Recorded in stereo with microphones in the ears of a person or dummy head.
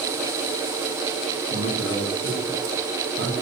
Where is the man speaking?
75° right (ahead or behind), 9.5 m.